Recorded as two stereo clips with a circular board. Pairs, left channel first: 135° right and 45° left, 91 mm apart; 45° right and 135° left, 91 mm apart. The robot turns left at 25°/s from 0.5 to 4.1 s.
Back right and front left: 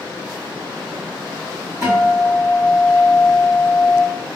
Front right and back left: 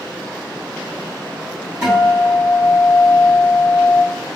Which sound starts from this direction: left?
A guitar, at 1.8 s.